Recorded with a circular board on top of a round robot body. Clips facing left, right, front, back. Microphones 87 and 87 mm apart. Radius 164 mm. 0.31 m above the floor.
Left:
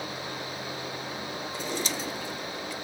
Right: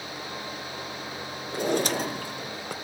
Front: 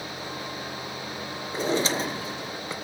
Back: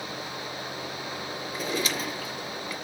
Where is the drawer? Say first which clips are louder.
Right 9 dB, front 6 dB; 60° right, 0.9 m.